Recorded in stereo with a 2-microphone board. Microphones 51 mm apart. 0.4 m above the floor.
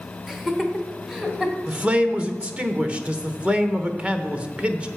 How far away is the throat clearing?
No throat clearing in this recording.